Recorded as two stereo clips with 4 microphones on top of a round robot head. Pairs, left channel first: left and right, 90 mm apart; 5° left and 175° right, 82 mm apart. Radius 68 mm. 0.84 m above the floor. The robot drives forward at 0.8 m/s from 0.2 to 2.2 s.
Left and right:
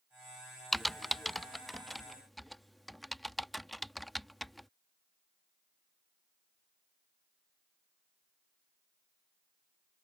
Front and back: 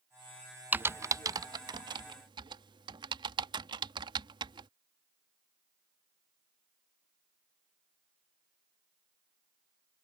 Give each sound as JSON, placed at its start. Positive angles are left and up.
{"t": 0.7, "sound": "typing on a keyboard", "azimuth_deg": 180}